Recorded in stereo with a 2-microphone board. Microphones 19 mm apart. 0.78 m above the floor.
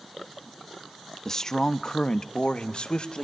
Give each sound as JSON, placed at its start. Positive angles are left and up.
{"t": 1.2, "sound": "a man speaking", "side_deg": 20, "distance_m": 0.9}